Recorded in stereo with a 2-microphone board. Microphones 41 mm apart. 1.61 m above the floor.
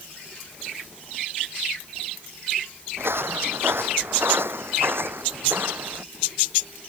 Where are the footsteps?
70° right (ahead or behind); by 6.0 s 60° right (ahead or behind).